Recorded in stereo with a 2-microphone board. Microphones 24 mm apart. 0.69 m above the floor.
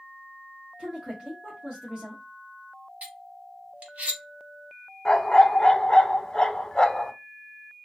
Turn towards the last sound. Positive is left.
turn(degrees=30)  # may be behind; listen again after turning